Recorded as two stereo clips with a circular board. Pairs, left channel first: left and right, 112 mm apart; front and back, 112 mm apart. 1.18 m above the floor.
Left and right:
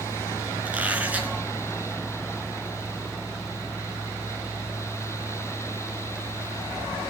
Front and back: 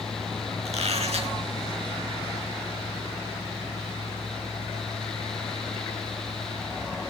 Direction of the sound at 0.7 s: 165° right.